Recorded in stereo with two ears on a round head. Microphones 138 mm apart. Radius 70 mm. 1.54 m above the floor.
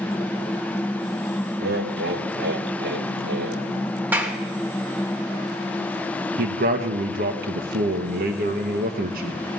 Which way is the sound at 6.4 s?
65° right (ahead or behind).